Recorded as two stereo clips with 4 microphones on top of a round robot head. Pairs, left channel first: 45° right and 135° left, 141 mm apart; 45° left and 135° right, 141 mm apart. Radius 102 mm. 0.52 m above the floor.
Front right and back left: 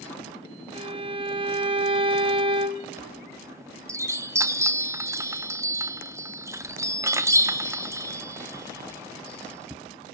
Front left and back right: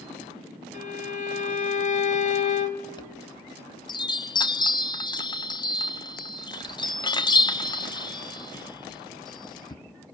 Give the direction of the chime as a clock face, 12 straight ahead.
9 o'clock.